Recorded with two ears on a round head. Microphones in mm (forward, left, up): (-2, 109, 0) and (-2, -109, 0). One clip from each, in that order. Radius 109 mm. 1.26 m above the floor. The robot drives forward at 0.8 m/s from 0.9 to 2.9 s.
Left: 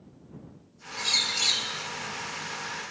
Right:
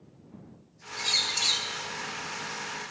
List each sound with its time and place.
1.0 s a bird: centre (ahead or behind), 1.3 m